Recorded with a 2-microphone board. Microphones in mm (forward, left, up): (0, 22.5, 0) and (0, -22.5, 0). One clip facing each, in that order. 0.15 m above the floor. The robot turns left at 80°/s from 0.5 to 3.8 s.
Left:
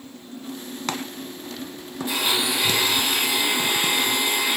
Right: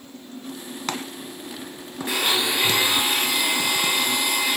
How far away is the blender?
About 1.6 m.